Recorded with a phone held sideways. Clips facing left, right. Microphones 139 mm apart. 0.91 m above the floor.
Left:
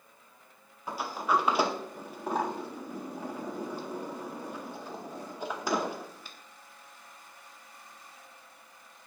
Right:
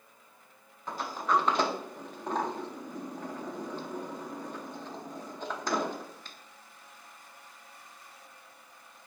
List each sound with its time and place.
0.9 s a sliding door: 10° left (ahead or behind), 0.5 m